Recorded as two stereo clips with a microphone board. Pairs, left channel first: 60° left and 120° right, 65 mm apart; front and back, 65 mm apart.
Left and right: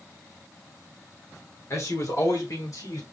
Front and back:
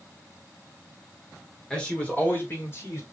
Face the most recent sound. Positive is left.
turn(degrees=40)